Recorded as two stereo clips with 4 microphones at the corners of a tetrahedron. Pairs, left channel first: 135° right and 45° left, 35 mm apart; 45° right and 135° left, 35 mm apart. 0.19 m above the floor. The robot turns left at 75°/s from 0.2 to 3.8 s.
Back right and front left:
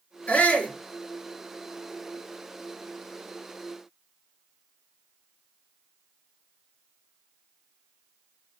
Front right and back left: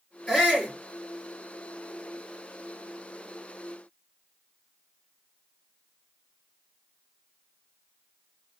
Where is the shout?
130° right, 3 m; by 0.7 s 165° right, 3 m.